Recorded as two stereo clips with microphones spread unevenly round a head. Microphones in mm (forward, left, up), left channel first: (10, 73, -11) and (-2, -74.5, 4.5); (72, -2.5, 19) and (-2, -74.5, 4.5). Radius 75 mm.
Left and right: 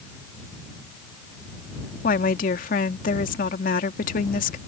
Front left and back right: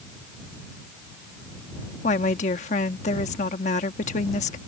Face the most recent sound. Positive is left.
turn(degrees=50)